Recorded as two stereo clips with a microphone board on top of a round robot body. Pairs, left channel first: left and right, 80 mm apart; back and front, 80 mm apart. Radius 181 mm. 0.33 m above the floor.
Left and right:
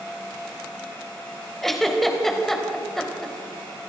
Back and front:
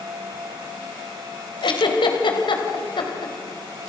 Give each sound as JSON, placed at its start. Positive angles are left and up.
{"t": 1.6, "sound": "a giggle", "azimuth_deg": 175, "distance_m": 3.5}